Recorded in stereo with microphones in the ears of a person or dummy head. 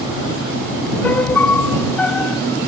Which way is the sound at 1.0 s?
10° left (ahead or behind).